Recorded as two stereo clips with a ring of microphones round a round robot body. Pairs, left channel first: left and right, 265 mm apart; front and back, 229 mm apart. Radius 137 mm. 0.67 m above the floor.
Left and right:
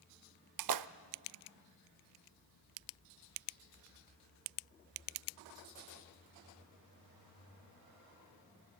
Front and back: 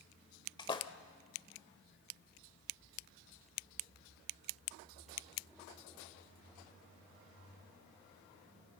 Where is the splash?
75° right, 0.7 m.